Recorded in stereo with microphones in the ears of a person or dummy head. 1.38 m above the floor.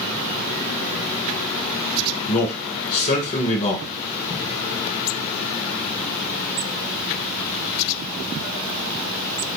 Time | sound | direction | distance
2.3 | a man speaking | 40° left (ahead or behind) | 1.6 m